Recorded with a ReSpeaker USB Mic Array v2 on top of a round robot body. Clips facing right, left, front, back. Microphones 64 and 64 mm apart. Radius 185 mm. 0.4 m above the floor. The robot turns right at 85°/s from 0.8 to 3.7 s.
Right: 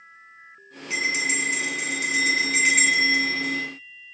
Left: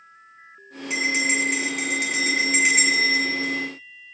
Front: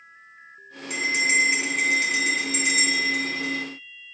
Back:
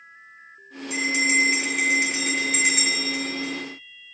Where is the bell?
20° left, 6 m; by 3.6 s 110° right, 6 m.